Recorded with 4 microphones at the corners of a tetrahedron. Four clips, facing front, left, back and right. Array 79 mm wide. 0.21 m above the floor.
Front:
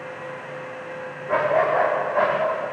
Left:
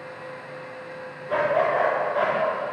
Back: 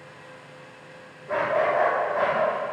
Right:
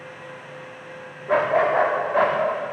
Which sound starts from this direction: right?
A dog barking, at 1.3 s.